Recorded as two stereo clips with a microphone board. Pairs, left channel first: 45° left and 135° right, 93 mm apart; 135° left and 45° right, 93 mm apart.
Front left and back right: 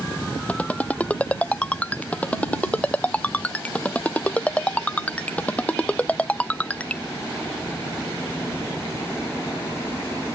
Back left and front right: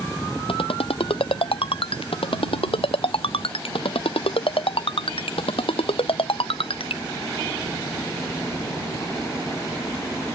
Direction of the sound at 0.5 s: 120° left.